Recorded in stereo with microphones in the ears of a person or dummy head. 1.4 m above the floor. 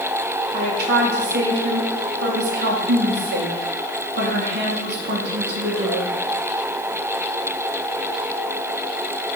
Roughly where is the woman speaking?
Right.